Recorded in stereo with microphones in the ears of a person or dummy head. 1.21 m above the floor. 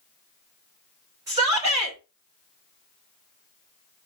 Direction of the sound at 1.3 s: 15° right (ahead or behind).